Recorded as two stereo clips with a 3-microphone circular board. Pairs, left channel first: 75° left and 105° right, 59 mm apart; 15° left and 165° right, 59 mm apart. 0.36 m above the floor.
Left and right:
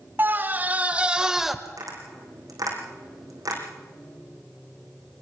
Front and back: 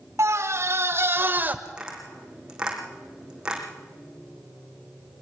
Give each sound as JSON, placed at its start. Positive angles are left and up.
{"t": 0.2, "sound": "a scream", "azimuth_deg": -150, "distance_m": 1.6}
{"t": 1.6, "sound": "tapping", "azimuth_deg": -90, "distance_m": 4.5}